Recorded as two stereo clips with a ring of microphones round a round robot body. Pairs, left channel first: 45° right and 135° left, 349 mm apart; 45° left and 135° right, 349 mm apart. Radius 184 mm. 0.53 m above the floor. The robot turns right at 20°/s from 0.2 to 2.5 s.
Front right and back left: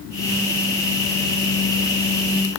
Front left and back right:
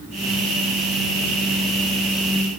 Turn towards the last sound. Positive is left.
No sound to turn to.